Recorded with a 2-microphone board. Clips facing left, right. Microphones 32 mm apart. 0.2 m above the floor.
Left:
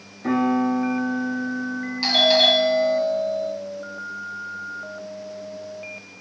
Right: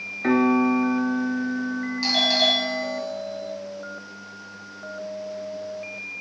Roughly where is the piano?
Right.